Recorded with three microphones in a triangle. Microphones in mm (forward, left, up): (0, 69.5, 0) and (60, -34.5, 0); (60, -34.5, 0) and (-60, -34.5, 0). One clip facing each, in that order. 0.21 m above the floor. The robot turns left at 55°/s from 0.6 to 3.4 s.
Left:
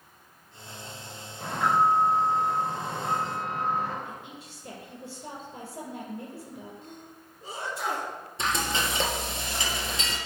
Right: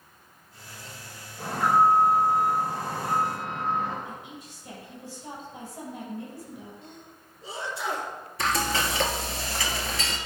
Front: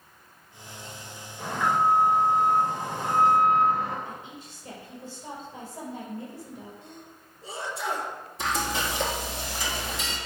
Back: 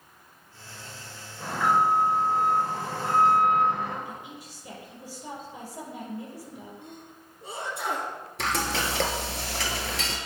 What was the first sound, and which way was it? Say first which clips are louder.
An alarm: right 2 dB, back 1 dB; 80° right.